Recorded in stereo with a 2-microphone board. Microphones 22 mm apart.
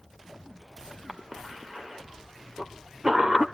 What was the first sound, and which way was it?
A cough, 25° right (ahead or behind).